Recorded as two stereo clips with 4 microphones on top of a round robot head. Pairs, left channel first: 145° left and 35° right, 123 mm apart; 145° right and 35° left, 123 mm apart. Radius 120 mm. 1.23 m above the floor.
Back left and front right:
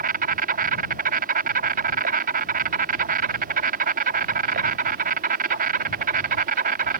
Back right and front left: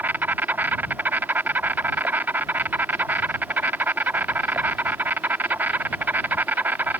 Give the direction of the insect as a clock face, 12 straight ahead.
1 o'clock.